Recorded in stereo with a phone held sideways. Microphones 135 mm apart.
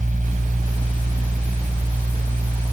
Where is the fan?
85° right.